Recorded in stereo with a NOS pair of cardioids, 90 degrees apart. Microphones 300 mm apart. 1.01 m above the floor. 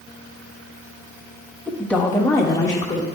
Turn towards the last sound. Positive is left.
turn(degrees=15)